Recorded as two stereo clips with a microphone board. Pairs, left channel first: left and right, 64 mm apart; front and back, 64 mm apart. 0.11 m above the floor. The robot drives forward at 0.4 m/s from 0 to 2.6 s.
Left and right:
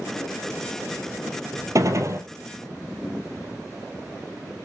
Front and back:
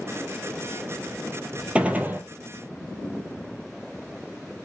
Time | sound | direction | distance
1.8 | a gunshot | 110° right | 0.6 m